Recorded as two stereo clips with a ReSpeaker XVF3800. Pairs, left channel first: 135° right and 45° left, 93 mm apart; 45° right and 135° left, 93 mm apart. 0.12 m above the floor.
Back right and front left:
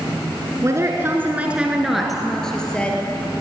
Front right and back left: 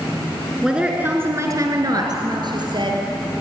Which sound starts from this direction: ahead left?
A woman speaking, at 0.6 s.